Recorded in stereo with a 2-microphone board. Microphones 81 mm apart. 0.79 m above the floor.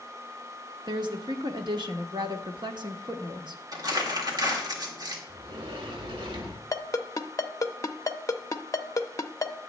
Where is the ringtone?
40° left (ahead or behind), 0.6 m.